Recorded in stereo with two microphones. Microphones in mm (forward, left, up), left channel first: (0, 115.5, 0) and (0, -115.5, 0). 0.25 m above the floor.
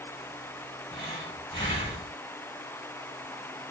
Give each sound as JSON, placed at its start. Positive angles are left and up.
{"t": 0.9, "sound": "breathing", "side_deg": 20, "distance_m": 1.3}